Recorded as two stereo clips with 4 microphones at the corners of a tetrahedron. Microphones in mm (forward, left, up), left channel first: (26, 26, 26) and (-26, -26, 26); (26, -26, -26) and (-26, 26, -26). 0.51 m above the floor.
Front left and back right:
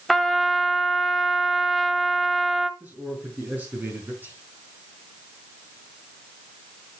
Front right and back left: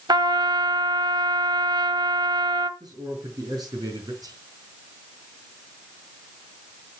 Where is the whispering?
160° left, 4 m.